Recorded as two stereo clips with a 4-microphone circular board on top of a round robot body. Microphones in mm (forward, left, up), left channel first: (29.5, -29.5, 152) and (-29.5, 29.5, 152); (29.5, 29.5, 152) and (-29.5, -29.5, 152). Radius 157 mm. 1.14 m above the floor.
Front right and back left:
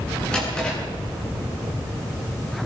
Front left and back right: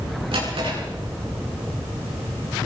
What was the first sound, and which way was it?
A drawer, 125° right.